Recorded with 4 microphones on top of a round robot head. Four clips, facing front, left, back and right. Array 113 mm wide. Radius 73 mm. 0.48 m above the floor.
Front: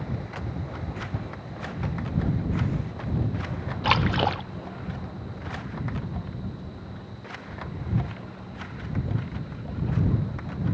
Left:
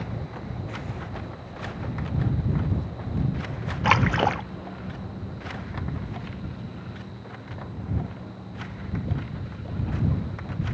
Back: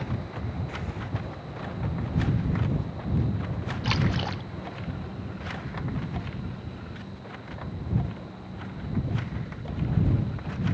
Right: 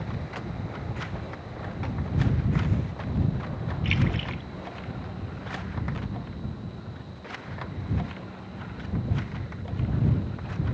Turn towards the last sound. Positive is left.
turn(degrees=55)